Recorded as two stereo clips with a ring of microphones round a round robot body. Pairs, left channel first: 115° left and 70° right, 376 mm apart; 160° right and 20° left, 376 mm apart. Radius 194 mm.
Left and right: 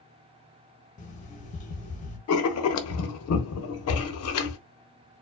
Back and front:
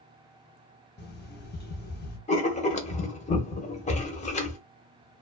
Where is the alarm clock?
165° left, 0.7 m.